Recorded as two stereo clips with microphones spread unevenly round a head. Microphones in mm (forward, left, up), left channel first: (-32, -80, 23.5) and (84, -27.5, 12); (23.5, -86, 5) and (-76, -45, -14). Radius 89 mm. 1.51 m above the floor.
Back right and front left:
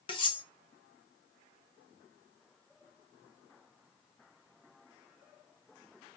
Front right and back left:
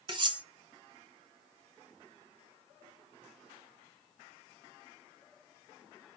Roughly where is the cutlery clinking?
Behind.